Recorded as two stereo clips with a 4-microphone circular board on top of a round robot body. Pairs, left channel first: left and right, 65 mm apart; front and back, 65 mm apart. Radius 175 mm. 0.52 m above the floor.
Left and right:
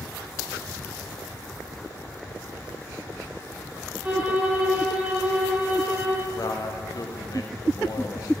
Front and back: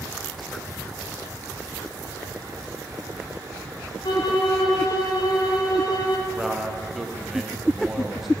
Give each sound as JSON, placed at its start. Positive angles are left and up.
{"t": 4.0, "sound": "a violin", "azimuth_deg": -15, "distance_m": 1.0}
{"t": 6.3, "sound": "a man speaking", "azimuth_deg": 95, "distance_m": 1.2}